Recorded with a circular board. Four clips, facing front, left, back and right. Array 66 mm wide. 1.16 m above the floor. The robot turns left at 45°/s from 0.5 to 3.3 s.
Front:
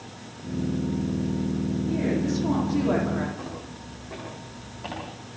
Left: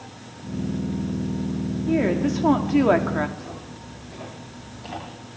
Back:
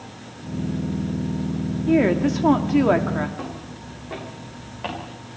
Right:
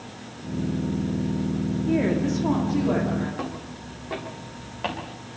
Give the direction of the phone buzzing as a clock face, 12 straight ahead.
I don't hear a phone buzzing.